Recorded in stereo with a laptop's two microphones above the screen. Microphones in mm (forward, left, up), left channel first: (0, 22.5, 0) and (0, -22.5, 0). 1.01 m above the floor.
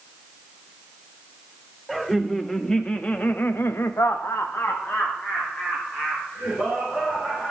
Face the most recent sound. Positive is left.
turn(degrees=25)  # may be behind; listen again after turning